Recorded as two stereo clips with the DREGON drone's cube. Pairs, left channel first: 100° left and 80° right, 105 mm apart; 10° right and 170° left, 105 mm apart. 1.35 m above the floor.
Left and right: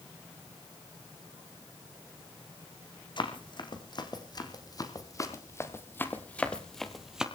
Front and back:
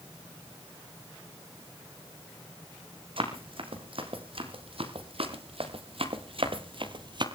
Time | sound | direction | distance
3.2 | running footsteps | 140° left | 4.5 m